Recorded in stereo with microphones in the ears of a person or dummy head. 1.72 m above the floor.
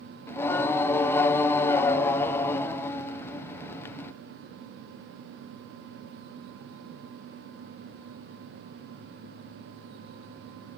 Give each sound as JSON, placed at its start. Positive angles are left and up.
{"t": 0.3, "sound": "singing", "side_deg": 15, "distance_m": 1.0}